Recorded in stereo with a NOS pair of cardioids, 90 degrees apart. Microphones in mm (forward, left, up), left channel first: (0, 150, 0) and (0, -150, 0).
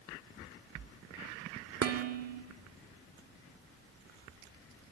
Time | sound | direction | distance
1.8 | dishes clattering | 55° right | 2.5 m